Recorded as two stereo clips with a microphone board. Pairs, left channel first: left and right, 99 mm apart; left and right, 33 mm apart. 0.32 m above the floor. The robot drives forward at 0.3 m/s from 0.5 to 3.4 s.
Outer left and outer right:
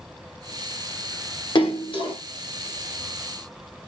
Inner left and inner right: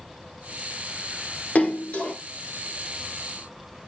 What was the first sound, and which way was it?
A splash, 55° left (ahead or behind).